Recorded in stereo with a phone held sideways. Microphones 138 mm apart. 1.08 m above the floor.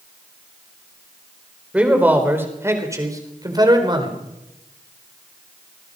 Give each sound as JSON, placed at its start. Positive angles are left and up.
{"t": 1.7, "sound": "a man speaking", "side_deg": -10, "distance_m": 4.0}